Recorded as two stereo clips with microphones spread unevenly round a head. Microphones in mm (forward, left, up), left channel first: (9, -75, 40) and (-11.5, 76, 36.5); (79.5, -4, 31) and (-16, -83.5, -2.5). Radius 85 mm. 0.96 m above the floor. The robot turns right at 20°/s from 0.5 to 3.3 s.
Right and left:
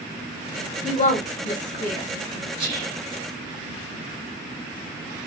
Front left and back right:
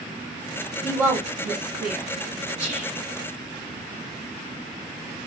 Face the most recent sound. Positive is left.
turn(degrees=165)